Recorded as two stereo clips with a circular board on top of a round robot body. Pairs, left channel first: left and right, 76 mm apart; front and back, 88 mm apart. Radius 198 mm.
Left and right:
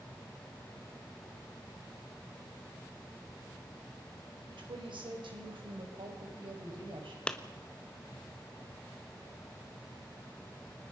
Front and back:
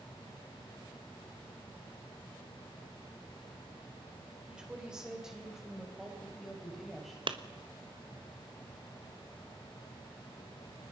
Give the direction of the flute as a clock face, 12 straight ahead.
No flute in this recording.